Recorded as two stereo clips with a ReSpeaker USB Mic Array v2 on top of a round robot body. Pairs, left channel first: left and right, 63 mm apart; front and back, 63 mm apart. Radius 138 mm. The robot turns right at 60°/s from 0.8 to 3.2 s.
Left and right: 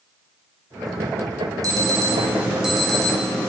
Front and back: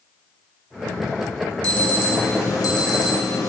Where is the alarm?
75° right, 2.5 m; by 3.5 s 20° left, 2.5 m.